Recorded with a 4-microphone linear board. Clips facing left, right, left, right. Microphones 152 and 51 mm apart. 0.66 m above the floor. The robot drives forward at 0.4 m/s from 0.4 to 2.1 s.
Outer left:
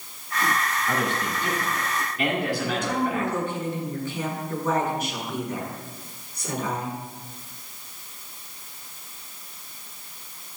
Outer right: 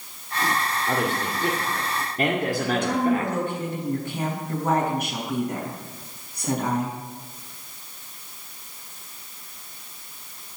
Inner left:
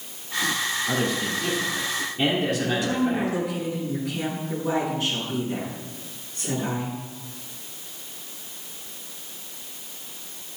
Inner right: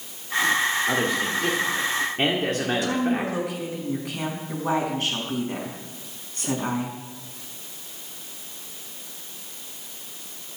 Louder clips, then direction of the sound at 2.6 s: Outer right 3 dB, even; 55° right (ahead or behind).